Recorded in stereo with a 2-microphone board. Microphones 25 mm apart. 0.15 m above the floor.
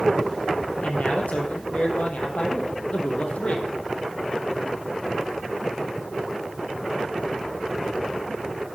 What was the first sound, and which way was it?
A man speaking, 65° left (ahead or behind).